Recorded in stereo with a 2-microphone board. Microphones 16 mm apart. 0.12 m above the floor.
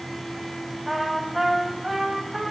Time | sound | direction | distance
0.9 | a trumpet | 5° right (ahead or behind) | 2.0 m